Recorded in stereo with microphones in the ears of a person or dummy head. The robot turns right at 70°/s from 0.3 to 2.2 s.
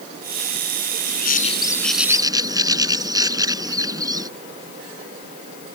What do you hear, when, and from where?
1.1 s a bird: 120° left; by 4.3 s 160° right